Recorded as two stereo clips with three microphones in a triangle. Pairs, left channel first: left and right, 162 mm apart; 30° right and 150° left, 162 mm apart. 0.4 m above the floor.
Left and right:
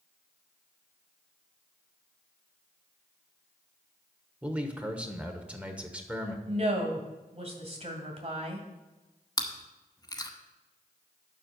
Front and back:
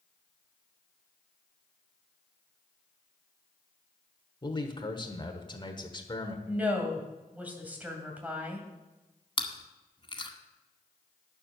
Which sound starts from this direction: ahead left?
Chewing, at 9.4 s.